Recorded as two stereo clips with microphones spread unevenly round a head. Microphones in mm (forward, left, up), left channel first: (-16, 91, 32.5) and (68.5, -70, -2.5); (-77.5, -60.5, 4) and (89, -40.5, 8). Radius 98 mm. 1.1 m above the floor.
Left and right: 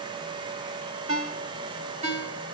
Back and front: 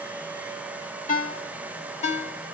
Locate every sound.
1.1 s a ringtone: 125° right, 2.5 m